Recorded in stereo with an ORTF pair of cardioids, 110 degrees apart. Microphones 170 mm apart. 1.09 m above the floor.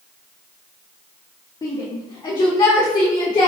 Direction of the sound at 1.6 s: 30° left.